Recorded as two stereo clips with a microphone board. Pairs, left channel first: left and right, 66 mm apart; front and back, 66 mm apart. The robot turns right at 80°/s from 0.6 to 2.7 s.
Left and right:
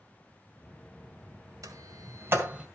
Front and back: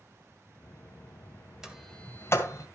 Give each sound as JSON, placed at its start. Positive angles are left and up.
{"t": 1.6, "sound": "a sliding door", "azimuth_deg": -100, "distance_m": 1.9}